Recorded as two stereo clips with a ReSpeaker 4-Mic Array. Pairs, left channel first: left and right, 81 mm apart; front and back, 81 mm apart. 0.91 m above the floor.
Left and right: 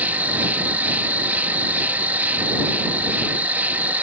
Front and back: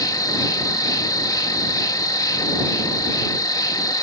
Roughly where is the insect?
Ahead right.